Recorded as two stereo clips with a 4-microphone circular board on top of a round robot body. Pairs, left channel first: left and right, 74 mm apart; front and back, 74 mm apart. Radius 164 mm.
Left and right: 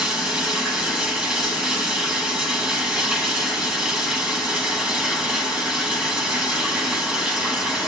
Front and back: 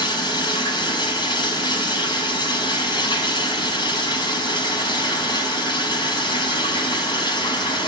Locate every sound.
0.0 s running water: 10° right, 4 m